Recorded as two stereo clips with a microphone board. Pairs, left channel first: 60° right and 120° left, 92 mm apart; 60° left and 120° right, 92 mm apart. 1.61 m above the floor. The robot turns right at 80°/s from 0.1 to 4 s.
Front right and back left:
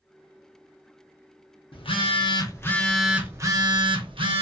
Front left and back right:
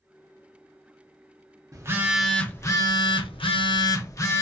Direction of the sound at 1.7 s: 70° right.